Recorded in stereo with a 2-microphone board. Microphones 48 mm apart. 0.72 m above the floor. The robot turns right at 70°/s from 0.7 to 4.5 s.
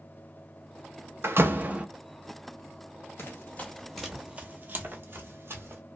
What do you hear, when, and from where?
1.2 s a door slam: 70° right, 0.6 m; by 1.9 s 25° right, 0.6 m
3.2 s running footsteps: 55° left (ahead or behind), 1.1 m; by 5.8 s 55° right (ahead or behind), 1.2 m